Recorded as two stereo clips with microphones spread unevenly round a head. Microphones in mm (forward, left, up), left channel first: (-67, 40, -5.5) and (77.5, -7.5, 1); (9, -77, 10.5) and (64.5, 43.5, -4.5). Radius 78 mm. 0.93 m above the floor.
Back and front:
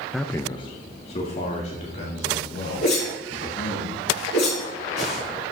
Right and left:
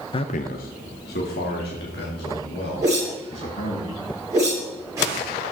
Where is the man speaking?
105° right, 0.6 m; by 3.8 s 150° right, 5.5 m.